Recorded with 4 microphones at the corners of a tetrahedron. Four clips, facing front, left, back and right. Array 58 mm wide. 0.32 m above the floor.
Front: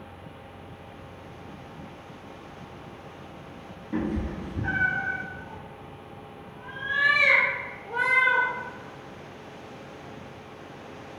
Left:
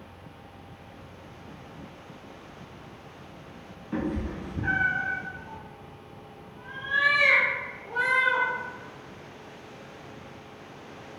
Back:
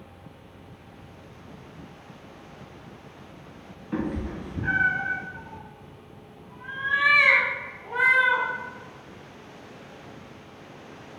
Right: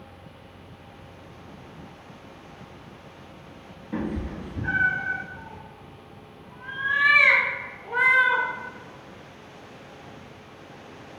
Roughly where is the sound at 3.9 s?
Behind left.